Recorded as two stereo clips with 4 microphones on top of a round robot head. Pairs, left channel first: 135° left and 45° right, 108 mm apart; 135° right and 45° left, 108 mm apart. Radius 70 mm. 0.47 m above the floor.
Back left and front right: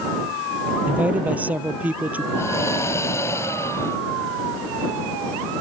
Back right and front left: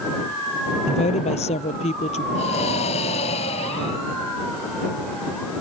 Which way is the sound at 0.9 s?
120° right.